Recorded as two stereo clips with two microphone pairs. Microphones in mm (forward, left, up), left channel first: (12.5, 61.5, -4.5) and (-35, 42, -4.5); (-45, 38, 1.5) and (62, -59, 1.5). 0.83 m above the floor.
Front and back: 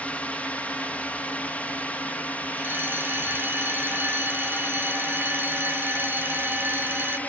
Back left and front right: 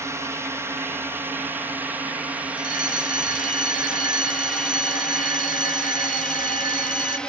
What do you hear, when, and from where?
0.0 s a drone: straight ahead; by 7.3 s 55° left
2.6 s a fire alarm: 155° left